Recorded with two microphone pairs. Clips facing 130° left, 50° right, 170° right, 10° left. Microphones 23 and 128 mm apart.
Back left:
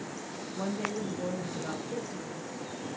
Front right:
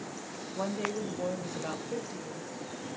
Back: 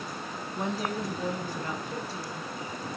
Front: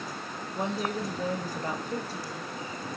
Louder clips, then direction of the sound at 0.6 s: Front right 1 dB, front 1 dB; 45° right.